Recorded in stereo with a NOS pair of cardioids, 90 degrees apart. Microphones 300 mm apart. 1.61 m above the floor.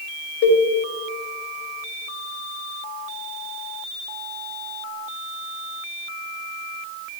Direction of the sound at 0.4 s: 60° left.